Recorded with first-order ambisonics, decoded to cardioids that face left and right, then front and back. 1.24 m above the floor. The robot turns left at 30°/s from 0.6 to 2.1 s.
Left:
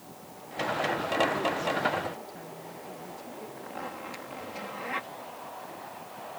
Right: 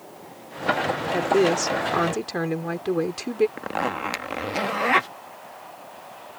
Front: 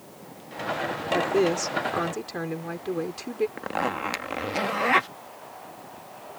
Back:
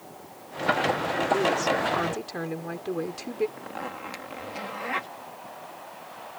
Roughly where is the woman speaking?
Ahead right.